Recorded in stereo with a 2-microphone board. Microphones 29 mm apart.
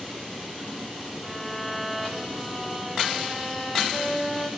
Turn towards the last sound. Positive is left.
turn(degrees=0)  # may be behind; listen again after turning